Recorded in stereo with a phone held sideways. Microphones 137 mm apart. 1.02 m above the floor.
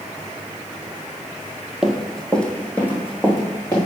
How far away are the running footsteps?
About 1.3 m.